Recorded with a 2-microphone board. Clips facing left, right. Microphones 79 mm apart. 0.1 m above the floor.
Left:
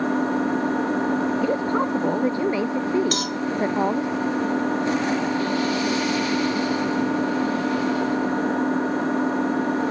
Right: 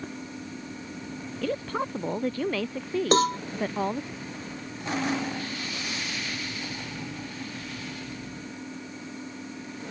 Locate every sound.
0.0 s an engine running: 65° left (ahead or behind)
1.4 s a woman speaking: 20° left (ahead or behind)
3.1 s a cowbell: 35° right (ahead or behind)